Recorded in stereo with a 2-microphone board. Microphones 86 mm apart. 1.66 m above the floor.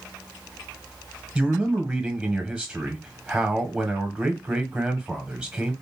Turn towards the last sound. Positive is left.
turn(degrees=-15)  # may be behind; listen again after turning